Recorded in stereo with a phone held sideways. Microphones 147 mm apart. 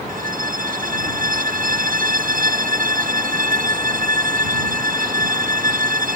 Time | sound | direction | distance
0.1 | a violin | 65° right (ahead or behind) | ?